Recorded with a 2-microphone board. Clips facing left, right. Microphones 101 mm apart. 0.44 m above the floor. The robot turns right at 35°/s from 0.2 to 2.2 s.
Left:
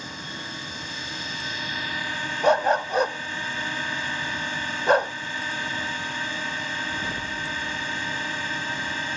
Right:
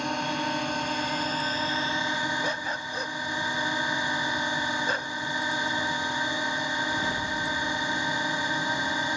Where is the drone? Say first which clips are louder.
Right 9 dB; 90° right; by 9.2 s 20° right.